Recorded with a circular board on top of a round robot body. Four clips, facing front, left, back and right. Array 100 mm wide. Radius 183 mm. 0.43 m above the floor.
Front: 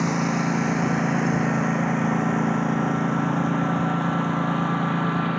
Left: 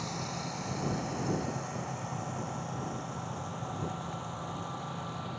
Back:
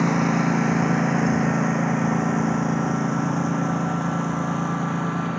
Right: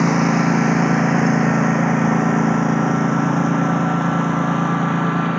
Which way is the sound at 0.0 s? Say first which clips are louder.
Right 22 dB, back 3 dB; 95° right.